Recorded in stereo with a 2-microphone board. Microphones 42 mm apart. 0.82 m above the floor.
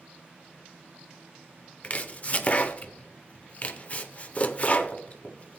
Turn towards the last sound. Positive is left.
turn(degrees=35)  # may be behind; listen again after turning